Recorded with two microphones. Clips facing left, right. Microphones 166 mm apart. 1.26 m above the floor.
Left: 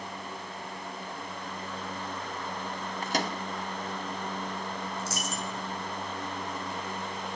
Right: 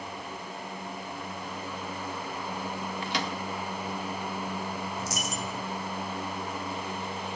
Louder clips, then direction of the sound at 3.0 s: Left 4 dB; 45° left (ahead or behind).